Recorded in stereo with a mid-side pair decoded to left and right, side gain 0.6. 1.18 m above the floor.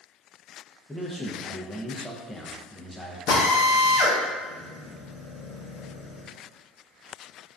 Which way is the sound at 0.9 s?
10° left.